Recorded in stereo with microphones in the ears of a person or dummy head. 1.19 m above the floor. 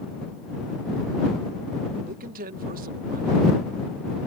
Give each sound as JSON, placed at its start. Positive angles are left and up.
{"t": 2.0, "sound": "a man speaking", "side_deg": -45}